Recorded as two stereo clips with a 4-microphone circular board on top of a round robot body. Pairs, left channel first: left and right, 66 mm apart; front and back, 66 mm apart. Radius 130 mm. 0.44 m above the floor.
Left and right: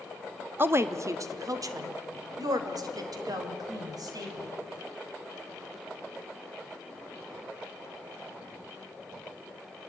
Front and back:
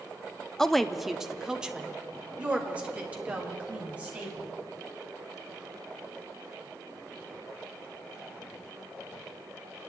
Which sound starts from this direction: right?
A woman speaking, at 0.6 s.